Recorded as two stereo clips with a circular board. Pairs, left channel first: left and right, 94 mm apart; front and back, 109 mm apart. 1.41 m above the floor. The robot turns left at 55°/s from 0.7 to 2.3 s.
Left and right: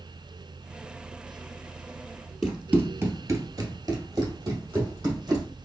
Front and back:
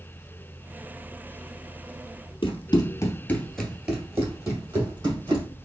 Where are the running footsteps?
5° right, 2 m; by 5.5 s 135° right, 4 m.